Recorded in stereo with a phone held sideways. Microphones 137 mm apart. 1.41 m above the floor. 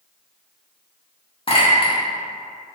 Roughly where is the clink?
Left.